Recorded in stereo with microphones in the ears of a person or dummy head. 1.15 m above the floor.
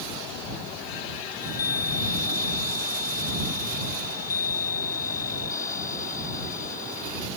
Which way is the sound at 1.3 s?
15° left (ahead or behind).